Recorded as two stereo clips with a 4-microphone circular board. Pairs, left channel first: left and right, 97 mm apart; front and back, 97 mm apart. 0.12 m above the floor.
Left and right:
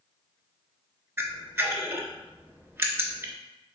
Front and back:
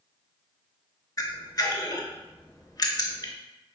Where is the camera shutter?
30° right, 0.6 m.